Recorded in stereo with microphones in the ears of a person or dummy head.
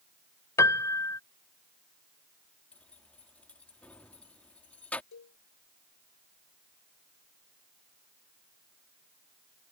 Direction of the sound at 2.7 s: 5° left (ahead or behind).